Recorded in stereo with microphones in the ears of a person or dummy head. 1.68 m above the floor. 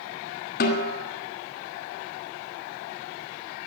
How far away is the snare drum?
About 2 m.